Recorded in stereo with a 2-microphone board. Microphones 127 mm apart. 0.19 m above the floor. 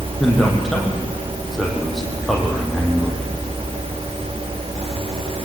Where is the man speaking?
Centre (ahead or behind), 6.5 m.